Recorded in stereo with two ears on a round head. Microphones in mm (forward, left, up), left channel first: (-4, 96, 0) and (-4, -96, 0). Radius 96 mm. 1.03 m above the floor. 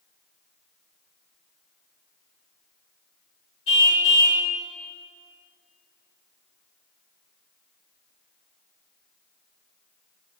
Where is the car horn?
55° left (ahead or behind), 2.5 m.